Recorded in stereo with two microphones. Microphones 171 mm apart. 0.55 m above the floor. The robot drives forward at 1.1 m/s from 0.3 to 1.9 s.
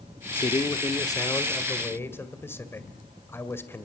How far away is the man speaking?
About 1.0 m.